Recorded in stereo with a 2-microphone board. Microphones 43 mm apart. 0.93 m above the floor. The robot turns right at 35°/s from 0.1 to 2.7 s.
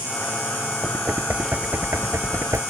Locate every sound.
0.8 s knocking: 25° right (ahead or behind); by 2.6 s 90° right